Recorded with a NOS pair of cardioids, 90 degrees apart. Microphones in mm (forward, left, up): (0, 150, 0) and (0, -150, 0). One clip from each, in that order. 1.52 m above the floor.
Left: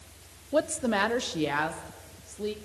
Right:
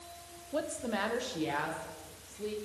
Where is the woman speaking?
45° left, 0.8 m; by 2.5 s 50° left, 2.5 m.